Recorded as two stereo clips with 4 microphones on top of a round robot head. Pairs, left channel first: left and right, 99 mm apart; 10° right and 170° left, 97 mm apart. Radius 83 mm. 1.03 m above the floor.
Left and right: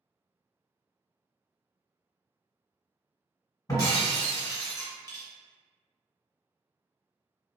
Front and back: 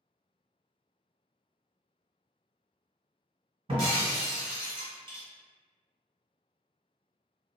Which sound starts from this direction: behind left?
Breaking glass, at 3.7 s.